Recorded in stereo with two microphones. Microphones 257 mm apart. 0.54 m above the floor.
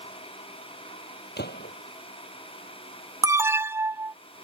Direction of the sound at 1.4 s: 40° left (ahead or behind).